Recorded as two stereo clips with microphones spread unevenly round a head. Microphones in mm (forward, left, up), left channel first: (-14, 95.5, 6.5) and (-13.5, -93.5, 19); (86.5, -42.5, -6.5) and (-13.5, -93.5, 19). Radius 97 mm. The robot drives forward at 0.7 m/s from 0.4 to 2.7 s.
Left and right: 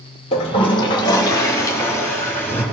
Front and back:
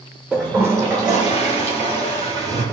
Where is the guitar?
I don't hear a guitar.